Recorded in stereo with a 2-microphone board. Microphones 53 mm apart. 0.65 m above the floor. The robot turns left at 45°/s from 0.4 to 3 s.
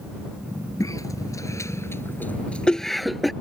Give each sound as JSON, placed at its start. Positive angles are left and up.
{"t": 0.8, "sound": "a cough", "side_deg": 80}